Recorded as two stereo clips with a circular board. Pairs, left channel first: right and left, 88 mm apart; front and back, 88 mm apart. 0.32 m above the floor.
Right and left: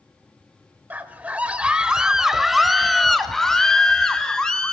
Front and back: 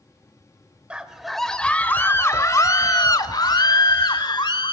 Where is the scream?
120° left, 0.9 m; by 4.7 s 10° right, 2.0 m.